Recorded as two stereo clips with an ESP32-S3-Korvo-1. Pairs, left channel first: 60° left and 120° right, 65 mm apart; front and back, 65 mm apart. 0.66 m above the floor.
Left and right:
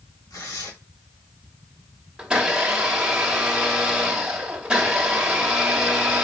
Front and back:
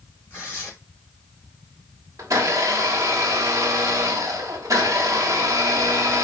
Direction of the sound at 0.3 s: 60° left.